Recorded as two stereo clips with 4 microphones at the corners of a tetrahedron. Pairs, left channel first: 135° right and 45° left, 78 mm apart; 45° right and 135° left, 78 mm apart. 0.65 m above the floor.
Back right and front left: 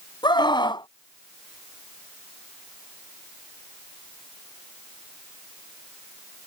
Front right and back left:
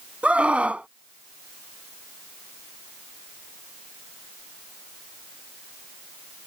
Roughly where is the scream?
Behind right.